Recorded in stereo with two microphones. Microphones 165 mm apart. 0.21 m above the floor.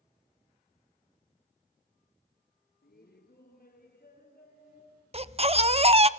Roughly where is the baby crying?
Right.